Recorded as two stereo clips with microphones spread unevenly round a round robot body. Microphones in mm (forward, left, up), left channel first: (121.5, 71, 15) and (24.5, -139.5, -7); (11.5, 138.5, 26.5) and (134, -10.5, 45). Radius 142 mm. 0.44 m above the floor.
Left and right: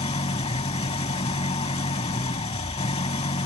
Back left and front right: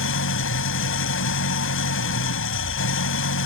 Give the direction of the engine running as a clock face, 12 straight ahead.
7 o'clock.